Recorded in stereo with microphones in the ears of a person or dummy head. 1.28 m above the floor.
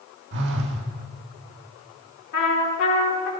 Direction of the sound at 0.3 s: 60° right (ahead or behind).